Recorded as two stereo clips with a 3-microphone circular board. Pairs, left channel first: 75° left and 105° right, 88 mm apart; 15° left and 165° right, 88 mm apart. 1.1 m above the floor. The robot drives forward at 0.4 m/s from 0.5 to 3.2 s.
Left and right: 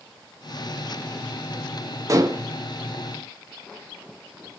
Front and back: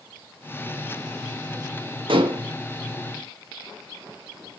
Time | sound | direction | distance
2.1 | dishes clattering | 155° right | 0.8 m